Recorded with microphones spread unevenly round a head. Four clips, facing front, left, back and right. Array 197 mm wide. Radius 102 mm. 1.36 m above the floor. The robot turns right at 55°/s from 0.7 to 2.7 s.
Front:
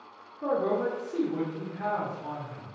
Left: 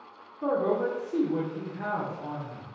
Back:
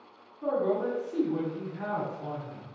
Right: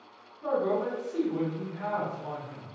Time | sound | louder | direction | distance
0.4 | a man speaking | left 2 dB, front 1 dB | 60° left | 0.9 m